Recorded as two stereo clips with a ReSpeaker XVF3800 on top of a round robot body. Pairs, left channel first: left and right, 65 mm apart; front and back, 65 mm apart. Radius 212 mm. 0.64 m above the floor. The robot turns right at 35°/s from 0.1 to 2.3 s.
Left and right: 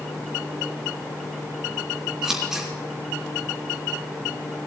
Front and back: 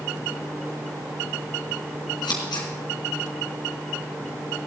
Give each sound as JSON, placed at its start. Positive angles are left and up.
{"t": 2.2, "sound": "scissors", "azimuth_deg": -10, "distance_m": 3.5}